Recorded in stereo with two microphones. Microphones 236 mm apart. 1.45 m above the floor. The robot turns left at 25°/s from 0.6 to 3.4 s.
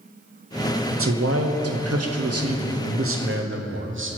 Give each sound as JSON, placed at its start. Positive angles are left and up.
{"t": 0.9, "sound": "a man speaking", "azimuth_deg": -60, "distance_m": 0.6}